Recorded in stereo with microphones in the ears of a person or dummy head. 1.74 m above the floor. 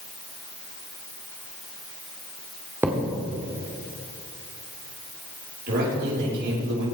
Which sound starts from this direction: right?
A man speaking, at 5.7 s.